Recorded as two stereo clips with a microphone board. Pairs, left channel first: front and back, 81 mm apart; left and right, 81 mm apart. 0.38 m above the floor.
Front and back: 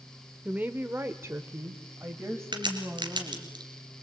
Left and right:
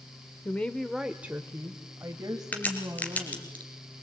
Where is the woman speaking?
125° left, 1.1 m; by 3.5 s 120° right, 3 m.